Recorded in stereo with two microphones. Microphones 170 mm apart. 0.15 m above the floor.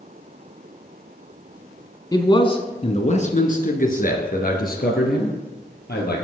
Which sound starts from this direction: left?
A man speaking, at 2.1 s.